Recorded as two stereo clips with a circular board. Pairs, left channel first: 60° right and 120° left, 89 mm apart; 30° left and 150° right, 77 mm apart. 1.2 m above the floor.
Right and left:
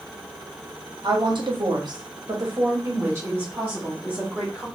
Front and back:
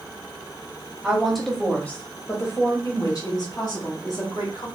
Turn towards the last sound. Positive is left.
turn(degrees=50)